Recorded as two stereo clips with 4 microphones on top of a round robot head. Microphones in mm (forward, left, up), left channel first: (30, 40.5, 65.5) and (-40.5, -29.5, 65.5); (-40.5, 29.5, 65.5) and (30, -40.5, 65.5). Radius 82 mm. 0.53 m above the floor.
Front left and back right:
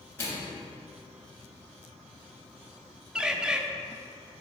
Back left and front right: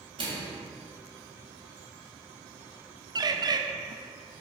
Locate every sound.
0.2 s a microwave: 20° right, 2.5 m
3.1 s a bird: 55° right, 0.6 m